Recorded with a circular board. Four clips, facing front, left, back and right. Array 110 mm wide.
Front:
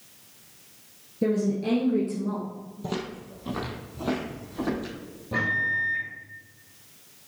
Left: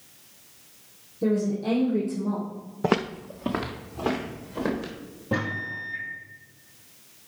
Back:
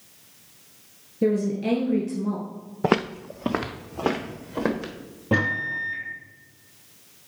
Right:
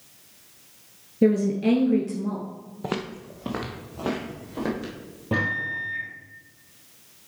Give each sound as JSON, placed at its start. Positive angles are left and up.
{"t": 1.2, "sound": "a woman speaking", "azimuth_deg": -100, "distance_m": 1.6}
{"t": 2.8, "sound": "footsteps", "azimuth_deg": 150, "distance_m": 0.6}
{"t": 5.3, "sound": "a microwave", "azimuth_deg": -165, "distance_m": 3.0}